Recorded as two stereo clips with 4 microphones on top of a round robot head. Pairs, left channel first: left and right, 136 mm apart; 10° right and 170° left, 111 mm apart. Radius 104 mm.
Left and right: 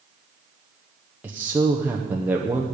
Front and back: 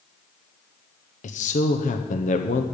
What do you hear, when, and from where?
1.2 s a man speaking: 10° right, 0.8 m